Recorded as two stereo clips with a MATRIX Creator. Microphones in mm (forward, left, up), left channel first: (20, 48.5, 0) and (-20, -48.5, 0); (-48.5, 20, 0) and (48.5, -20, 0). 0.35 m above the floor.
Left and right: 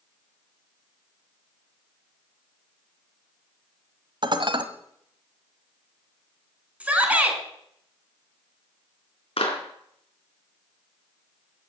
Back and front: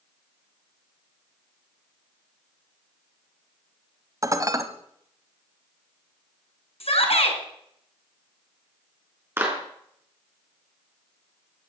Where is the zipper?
I don't hear a zipper.